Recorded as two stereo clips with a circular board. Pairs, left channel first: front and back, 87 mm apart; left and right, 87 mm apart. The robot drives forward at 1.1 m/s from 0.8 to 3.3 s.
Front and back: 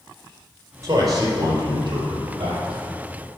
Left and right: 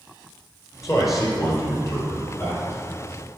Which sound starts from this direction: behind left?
A man speaking, at 0.8 s.